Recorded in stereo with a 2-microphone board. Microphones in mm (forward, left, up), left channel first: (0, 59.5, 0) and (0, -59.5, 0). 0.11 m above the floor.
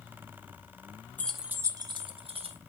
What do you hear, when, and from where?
1.2 s keys jangling: 15° left (ahead or behind), 0.8 m; by 2.6 s 55° right (ahead or behind), 1.7 m